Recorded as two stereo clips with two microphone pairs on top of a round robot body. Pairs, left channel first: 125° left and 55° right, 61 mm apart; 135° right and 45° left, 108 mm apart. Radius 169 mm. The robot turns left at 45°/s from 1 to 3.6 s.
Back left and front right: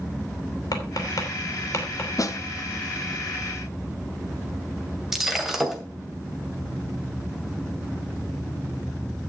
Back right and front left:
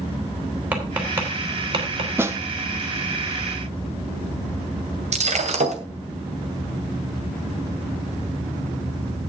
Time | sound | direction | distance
0.7 | tapping | 120° left | 4 m
2.2 | a snare drum | 110° left | 1.3 m
5.1 | breaking glass | 30° left | 2 m